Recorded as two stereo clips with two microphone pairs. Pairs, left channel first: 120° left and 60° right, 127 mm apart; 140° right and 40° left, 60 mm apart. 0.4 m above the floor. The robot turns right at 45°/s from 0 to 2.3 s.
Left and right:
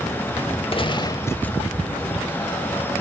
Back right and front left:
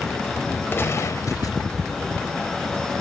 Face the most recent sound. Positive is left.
turn(degrees=-120)